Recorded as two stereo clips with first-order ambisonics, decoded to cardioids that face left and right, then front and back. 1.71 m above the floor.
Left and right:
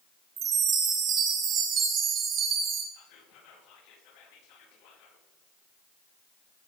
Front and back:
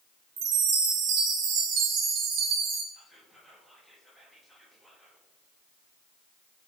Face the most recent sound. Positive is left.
turn(degrees=95)